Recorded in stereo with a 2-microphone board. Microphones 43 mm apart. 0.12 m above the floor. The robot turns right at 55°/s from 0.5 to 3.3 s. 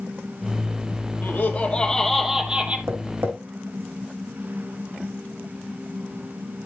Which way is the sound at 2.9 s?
70° right (ahead or behind).